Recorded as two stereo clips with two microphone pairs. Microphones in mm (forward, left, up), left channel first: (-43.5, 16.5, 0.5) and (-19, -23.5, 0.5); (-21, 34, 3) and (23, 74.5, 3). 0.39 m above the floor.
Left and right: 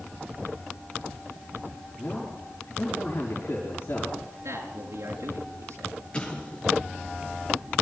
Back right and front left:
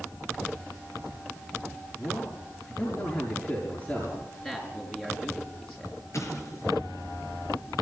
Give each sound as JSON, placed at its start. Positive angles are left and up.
{"t": 2.0, "sound": "a man speaking", "azimuth_deg": 160, "distance_m": 6.5}
{"t": 4.4, "sound": "a man speaking", "azimuth_deg": -65, "distance_m": 5.5}
{"t": 6.1, "sound": "an explosion", "azimuth_deg": -170, "distance_m": 5.0}